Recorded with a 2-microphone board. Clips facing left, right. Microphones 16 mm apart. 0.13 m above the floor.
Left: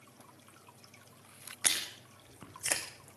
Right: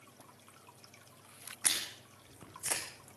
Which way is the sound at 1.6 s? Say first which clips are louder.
Left 2 dB; 55° left (ahead or behind).